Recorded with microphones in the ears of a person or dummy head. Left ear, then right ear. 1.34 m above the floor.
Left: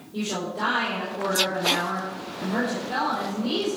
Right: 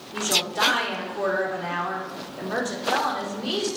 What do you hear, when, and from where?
0.1 s a woman speaking: 55° right (ahead or behind), 4 m